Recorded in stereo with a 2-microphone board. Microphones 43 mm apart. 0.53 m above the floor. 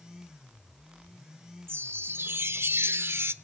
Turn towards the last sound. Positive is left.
turn(degrees=-65)  # may be behind; listen again after turning